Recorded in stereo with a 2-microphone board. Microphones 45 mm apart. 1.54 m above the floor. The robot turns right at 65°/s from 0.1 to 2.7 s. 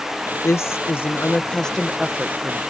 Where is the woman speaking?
85° left; by 2.6 s 130° right.